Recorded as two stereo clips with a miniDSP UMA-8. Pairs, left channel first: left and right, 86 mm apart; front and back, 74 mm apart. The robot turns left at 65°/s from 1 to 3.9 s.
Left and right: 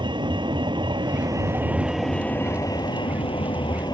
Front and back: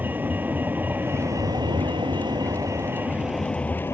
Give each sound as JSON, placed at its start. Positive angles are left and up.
{"t": 0.0, "sound": "a vehicle", "azimuth_deg": -115}